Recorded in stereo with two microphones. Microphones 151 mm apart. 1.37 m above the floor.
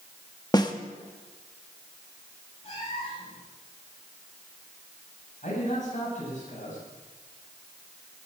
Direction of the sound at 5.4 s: 55° left (ahead or behind).